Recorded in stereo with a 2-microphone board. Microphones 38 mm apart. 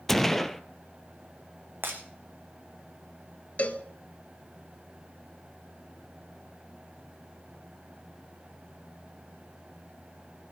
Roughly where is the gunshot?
Centre.